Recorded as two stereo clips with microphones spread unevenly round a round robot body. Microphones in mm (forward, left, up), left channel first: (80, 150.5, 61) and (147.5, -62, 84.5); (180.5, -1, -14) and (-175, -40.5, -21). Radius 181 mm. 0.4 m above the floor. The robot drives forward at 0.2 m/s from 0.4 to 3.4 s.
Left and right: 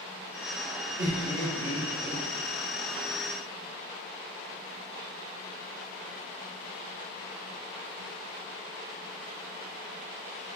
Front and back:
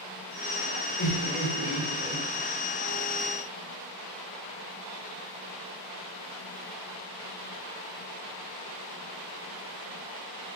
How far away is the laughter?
About 1.3 m.